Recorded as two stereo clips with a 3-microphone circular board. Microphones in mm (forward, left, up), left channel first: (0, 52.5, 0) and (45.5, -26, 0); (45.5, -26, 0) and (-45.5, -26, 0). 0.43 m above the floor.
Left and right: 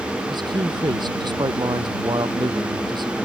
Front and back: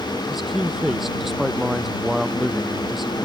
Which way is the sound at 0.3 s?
90° right.